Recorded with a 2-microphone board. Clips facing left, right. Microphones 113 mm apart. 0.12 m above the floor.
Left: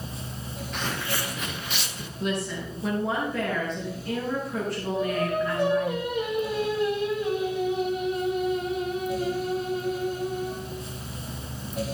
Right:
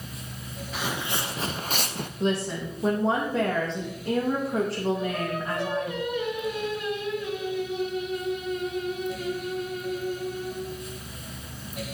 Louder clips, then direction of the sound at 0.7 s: Right 1 dB; 5° right (ahead or behind).